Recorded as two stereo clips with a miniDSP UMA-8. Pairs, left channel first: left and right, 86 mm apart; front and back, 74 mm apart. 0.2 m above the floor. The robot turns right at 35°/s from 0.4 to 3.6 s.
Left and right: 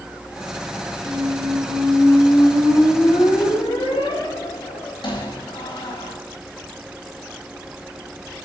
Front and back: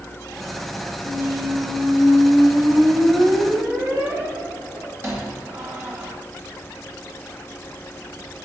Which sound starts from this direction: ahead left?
A squeak, at 1.0 s.